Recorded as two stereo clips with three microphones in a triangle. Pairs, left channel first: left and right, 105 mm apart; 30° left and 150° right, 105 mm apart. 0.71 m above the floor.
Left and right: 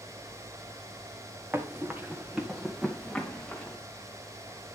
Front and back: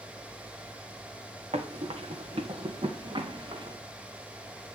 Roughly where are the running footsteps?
Behind.